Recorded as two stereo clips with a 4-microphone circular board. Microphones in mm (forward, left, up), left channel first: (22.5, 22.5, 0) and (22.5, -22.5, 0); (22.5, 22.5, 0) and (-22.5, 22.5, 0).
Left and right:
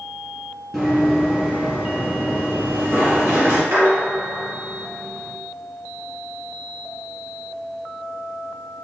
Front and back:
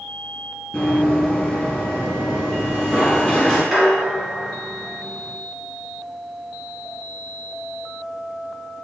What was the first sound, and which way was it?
Running footsteps, 5° left.